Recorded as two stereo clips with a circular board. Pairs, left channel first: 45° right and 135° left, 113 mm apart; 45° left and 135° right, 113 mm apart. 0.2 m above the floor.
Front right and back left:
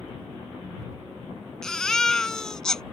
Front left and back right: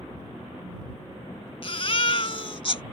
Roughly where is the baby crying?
Ahead left.